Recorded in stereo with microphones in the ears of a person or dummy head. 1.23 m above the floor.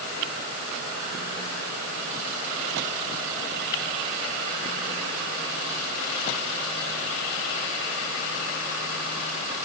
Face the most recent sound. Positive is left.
No sound to turn to.